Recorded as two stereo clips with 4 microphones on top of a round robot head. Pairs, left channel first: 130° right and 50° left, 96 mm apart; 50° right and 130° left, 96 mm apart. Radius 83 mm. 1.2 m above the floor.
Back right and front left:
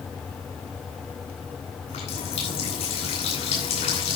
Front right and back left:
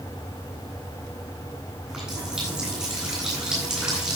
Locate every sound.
1.9 s a running tap: 145° right, 8.5 m